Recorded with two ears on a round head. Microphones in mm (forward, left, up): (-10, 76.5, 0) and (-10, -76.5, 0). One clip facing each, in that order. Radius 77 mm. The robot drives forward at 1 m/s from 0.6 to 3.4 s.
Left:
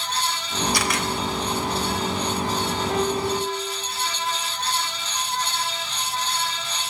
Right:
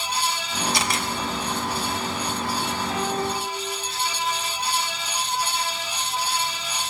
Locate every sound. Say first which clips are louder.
0.7 s a camera shutter: left 1 dB; 20° right (ahead or behind), 1.0 m; by 1.1 s 30° right (ahead or behind), 0.7 m
2.9 s a piano: left 4 dB; 55° left (ahead or behind), 2 m; by 3.4 s 45° left (ahead or behind), 2.5 m